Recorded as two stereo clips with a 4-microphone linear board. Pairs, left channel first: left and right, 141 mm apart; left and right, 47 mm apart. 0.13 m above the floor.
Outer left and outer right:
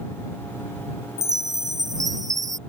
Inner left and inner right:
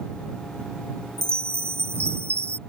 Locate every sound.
1.2 s a chime: 65° right (ahead or behind)